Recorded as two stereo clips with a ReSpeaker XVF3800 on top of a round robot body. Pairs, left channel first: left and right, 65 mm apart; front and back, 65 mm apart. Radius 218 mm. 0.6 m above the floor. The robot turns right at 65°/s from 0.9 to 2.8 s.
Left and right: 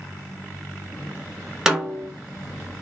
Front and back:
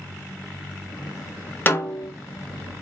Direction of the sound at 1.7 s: 20° right.